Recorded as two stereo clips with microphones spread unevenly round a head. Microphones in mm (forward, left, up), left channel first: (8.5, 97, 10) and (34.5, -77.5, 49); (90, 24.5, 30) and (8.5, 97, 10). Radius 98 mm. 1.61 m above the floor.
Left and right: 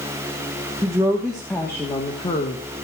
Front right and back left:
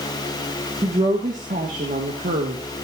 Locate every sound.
0.8 s a woman speaking: 150° right, 1.7 m; by 2.6 s 160° left, 1.9 m